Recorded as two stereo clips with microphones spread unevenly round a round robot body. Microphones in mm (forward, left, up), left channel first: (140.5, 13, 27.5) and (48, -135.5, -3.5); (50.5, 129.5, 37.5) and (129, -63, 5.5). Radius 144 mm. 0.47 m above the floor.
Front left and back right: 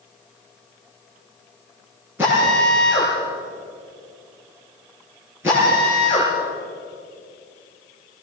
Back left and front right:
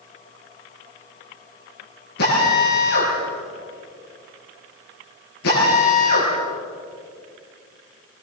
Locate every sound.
2.2 s a drill: 155° left, 9 m